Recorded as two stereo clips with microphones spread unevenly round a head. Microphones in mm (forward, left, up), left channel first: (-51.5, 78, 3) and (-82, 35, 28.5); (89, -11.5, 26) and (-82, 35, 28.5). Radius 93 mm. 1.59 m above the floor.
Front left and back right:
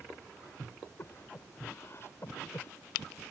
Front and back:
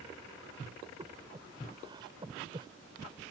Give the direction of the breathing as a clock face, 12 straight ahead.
9 o'clock.